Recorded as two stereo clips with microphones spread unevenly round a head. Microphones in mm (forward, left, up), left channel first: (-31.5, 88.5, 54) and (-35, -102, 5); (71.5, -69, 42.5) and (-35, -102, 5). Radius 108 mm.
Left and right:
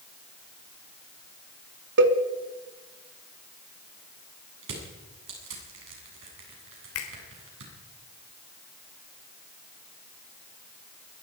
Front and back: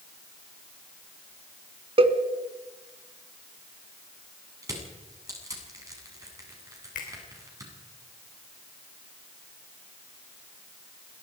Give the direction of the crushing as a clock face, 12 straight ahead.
3 o'clock.